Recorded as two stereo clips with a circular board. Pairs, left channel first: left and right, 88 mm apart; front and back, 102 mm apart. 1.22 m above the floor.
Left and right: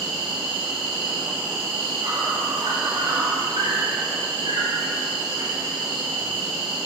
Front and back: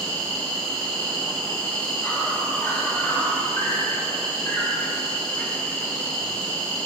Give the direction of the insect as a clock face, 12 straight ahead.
2 o'clock.